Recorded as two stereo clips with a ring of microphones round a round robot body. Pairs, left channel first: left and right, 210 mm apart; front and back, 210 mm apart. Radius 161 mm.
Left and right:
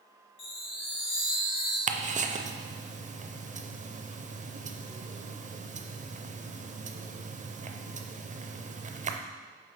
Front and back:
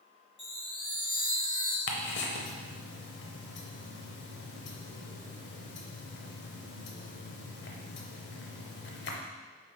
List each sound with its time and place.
0.4 s a chime: 65° left, 2.5 m
1.9 s ticking: 35° right, 0.7 m